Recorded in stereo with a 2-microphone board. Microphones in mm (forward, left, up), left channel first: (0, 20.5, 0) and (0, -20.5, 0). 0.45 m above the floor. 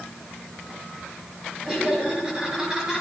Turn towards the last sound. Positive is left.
turn(degrees=-15)  # may be behind; listen again after turning